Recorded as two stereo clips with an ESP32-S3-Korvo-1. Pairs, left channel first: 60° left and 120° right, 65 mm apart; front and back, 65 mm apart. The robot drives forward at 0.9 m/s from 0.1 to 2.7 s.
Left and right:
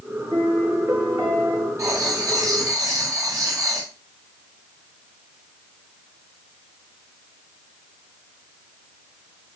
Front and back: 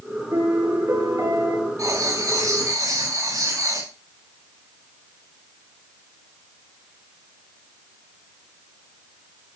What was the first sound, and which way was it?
A piano, 155° right.